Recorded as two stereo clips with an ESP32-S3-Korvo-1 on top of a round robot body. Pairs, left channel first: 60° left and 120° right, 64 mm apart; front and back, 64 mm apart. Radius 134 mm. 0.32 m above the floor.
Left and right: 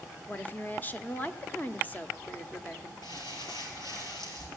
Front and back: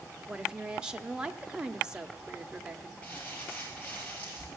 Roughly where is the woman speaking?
Left.